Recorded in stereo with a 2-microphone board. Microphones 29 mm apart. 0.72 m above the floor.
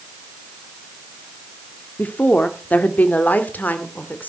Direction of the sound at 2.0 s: 60° left (ahead or behind).